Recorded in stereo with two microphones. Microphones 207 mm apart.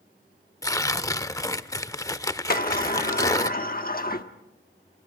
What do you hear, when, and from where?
0.6 s tearing paper: 15° left (ahead or behind), 0.6 m
2.5 s a sliding door: 45° left (ahead or behind), 1.0 m